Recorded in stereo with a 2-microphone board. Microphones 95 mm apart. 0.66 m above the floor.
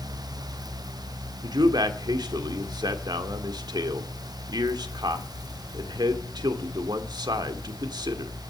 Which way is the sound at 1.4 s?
45° right (ahead or behind).